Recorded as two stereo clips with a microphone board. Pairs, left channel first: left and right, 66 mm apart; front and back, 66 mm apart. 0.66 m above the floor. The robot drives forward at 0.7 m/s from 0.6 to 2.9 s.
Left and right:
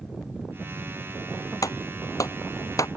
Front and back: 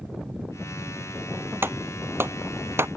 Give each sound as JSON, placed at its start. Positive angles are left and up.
{"t": 1.6, "sound": "a clap", "azimuth_deg": 125}